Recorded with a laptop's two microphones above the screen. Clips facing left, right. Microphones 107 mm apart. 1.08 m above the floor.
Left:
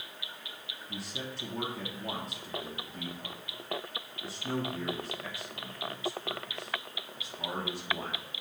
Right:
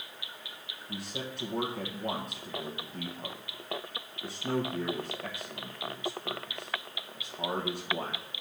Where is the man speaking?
60° right (ahead or behind), 1.2 m.